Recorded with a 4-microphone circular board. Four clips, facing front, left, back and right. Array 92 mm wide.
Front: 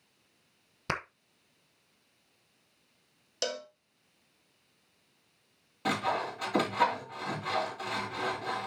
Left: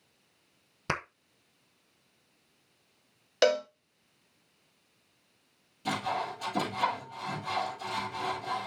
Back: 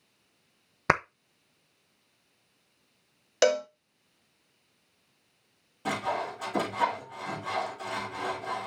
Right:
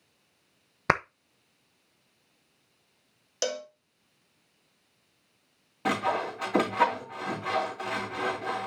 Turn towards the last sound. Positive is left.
turn(degrees=-75)